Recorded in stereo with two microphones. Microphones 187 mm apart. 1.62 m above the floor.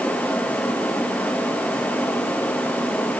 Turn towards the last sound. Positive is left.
No sound to turn to.